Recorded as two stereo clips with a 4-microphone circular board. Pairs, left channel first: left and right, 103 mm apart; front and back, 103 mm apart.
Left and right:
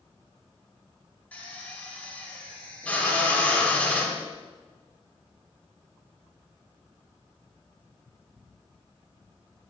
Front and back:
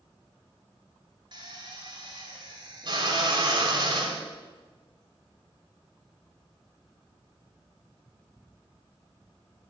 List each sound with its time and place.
1.3 s a drill: 165° left, 1.8 m